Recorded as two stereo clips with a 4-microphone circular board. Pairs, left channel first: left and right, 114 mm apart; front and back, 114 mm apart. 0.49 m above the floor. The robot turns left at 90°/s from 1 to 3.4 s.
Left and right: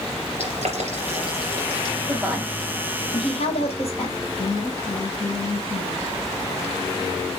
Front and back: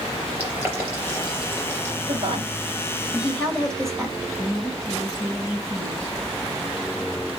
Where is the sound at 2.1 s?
155° right, 3 m; by 4.2 s 85° left, 3 m.